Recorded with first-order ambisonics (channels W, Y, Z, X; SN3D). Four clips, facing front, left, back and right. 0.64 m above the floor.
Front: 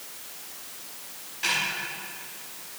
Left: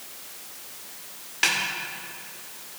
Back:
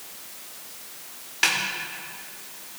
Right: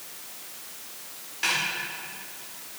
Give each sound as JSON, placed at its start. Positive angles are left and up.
{"t": 1.4, "sound": "a snare drum", "azimuth_deg": 145, "distance_m": 1.6}